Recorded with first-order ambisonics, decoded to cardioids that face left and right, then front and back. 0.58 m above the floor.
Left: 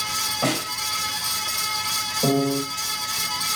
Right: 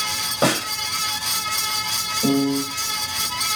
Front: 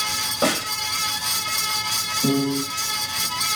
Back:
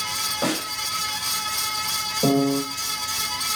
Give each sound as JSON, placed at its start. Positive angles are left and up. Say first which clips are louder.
{"t": 0.4, "sound": "a snare drum", "louder": "right 8 dB, front 7 dB", "azimuth_deg": -80, "distance_m": 2.5}
{"t": 2.2, "sound": "a piano", "louder": "even, back 2 dB", "azimuth_deg": 165, "distance_m": 2.0}